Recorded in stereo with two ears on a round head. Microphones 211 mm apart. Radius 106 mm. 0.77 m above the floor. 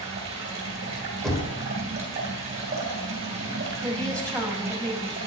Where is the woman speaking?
5° left (ahead or behind), 1.8 m.